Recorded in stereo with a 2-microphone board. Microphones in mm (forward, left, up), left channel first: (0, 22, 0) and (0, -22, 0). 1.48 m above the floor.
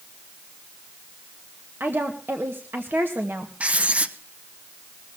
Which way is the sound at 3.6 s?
35° right (ahead or behind).